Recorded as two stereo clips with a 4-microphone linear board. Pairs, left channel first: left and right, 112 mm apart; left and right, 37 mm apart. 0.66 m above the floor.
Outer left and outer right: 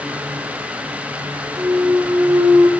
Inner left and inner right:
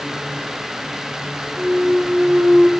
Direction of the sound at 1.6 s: 25° right (ahead or behind).